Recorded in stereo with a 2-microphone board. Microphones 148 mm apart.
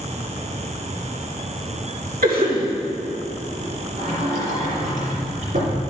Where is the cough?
75° right (ahead or behind), 2.5 m.